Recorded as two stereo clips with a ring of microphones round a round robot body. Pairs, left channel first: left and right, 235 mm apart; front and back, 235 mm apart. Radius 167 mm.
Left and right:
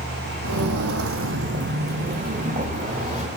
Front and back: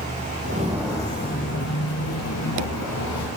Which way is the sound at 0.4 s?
125° right.